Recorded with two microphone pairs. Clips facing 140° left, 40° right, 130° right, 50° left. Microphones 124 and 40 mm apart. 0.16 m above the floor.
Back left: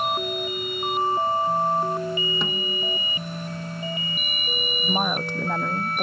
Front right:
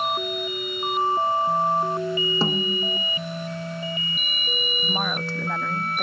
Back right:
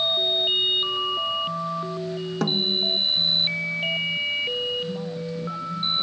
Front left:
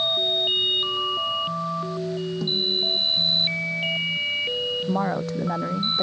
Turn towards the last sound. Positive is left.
turn(degrees=70)